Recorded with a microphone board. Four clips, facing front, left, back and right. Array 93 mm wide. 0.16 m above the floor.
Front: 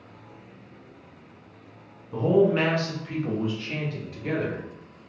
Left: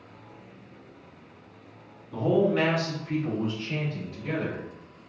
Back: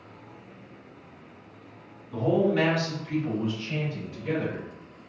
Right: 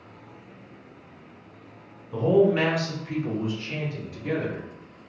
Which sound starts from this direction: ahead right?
A man speaking, at 2.1 s.